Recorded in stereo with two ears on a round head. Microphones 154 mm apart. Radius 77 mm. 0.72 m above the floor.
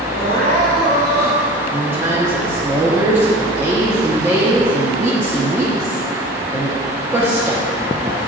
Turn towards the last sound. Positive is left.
turn(degrees=-15)  # may be behind; listen again after turning